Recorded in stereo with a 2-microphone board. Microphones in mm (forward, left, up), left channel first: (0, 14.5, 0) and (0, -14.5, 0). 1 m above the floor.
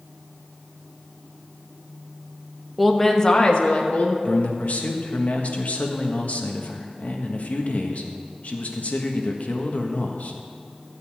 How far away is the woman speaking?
About 1.2 m.